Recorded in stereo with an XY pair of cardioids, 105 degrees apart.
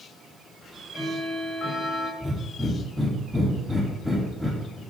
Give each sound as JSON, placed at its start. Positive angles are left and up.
{"t": 0.6, "sound": "ticking", "azimuth_deg": 40, "distance_m": 5.0}
{"t": 2.2, "sound": "breathing", "azimuth_deg": 5, "distance_m": 4.0}